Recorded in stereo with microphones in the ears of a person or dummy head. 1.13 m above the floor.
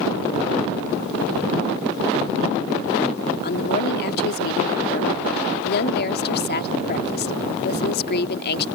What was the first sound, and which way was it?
A woman speaking, 55° left (ahead or behind).